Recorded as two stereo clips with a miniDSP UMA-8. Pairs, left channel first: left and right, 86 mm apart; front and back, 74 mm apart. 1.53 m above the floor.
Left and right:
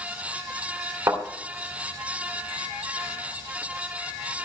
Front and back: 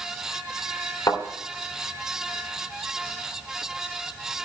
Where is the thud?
40° right, 3 m.